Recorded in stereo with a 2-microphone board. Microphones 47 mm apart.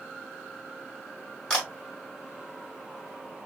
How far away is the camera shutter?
About 2 m.